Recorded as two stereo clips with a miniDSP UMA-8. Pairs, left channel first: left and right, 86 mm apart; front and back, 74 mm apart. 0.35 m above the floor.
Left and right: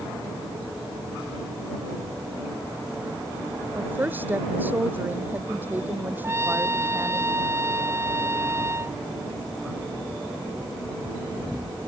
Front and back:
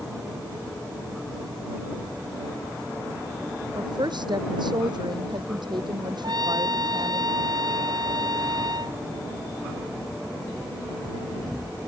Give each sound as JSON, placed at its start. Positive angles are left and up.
{"t": 3.8, "sound": "a woman speaking", "azimuth_deg": -160}
{"t": 6.2, "sound": "a trumpet", "azimuth_deg": -150}